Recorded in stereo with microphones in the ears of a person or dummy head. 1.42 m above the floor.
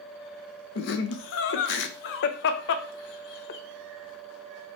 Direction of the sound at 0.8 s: 65° left (ahead or behind).